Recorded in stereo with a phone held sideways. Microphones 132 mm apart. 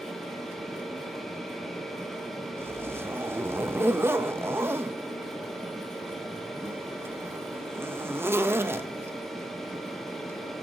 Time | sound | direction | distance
0.0 | a machine running | centre (ahead or behind) | 1.6 m
2.6 | a zipper | 20° right (ahead or behind) | 0.5 m